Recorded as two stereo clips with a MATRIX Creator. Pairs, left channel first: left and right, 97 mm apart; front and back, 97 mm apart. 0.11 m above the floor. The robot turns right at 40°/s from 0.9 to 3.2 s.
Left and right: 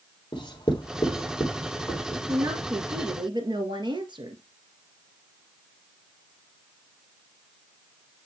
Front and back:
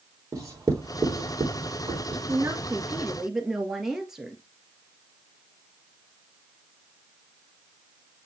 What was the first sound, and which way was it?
Writing, 125° left.